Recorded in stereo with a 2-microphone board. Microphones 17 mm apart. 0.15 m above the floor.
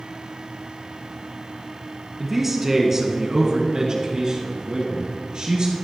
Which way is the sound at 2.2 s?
10° right (ahead or behind).